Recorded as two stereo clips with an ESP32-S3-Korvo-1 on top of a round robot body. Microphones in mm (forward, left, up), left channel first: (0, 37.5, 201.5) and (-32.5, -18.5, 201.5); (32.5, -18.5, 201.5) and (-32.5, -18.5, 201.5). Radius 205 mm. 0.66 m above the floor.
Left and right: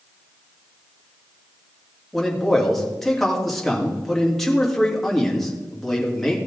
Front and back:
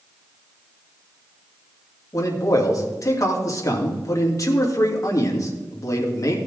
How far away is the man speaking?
About 2.5 m.